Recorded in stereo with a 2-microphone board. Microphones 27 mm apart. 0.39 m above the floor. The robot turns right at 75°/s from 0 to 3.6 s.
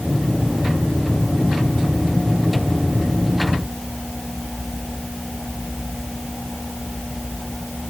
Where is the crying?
No crying in this recording.